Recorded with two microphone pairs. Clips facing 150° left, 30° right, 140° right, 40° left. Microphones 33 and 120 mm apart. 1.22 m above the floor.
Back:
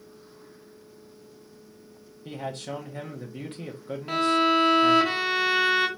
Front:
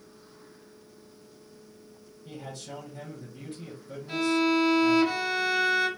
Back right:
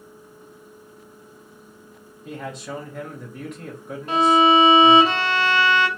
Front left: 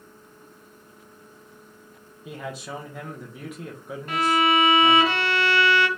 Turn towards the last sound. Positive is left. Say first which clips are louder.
# back 3 dB, back right 6 dB
turn(degrees=155)